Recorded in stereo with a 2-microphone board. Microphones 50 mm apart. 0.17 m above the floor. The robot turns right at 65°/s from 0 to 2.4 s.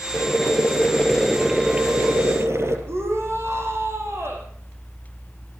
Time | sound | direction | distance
0.1 | boiling | 105° left | 5 m
2.9 | a shout | 60° right (ahead or behind) | 8.5 m